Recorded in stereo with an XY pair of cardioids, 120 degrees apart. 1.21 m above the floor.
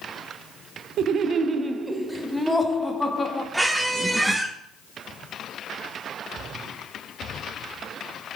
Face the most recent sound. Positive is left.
turn(degrees=-10)